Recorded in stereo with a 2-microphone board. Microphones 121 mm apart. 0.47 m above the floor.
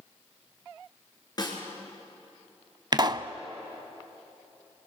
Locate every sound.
1.4 s a snare drum: 35° left (ahead or behind), 4 m
2.9 s a pop: 40° right (ahead or behind), 0.6 m